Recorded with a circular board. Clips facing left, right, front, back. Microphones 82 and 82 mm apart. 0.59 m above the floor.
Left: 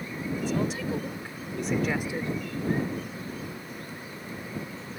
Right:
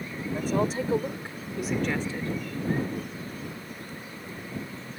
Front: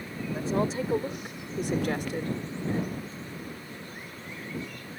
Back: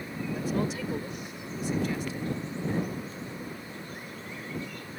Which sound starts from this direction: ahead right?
A woman speaking, at 0.3 s.